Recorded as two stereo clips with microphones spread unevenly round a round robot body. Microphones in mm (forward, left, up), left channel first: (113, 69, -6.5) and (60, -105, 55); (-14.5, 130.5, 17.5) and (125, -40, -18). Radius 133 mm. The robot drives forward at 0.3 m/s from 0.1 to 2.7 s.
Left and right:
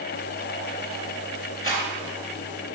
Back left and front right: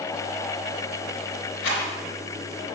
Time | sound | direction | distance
1.6 | a rattle | 140° left | 2.5 m